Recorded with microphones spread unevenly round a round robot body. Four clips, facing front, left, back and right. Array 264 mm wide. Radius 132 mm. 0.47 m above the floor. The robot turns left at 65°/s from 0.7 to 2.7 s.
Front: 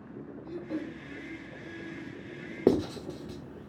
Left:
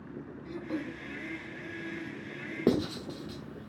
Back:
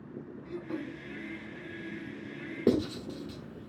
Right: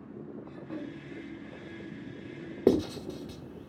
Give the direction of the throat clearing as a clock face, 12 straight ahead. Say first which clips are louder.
Left 6 dB, front 2 dB; 7 o'clock.